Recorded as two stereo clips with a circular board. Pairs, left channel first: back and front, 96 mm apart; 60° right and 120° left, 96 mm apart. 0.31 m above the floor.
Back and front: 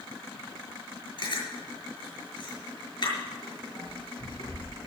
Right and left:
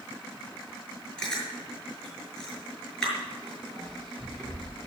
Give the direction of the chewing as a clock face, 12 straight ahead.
5 o'clock.